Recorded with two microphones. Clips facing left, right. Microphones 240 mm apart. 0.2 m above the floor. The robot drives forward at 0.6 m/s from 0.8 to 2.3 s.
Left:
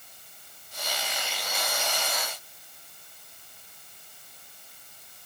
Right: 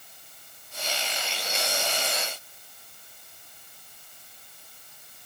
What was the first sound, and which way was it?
Only background noise.